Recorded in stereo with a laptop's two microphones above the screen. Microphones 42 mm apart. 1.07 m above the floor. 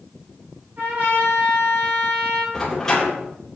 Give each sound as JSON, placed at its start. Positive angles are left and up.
{"t": 0.8, "sound": "a trumpet", "side_deg": -45, "distance_m": 5.5}
{"t": 2.5, "sound": "a door slam", "side_deg": 10, "distance_m": 3.0}